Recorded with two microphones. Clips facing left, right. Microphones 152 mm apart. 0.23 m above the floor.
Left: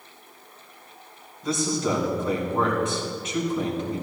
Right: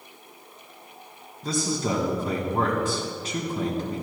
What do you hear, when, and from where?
1.4 s a man speaking: 35° right (ahead or behind), 2.5 m